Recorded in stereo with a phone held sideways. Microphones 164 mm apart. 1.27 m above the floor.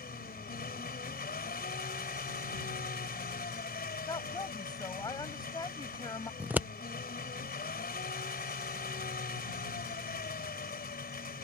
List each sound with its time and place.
0.0 s an engine running: 70° left (ahead or behind)
4.1 s a woman speaking: 25° left (ahead or behind)
6.4 s scissors: 10° right (ahead or behind)